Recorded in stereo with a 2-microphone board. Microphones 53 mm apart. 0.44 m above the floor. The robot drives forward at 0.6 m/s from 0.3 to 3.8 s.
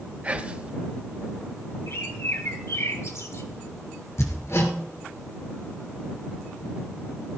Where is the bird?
55° left (ahead or behind), 2 m; by 3.5 s 70° left (ahead or behind), 2.0 m.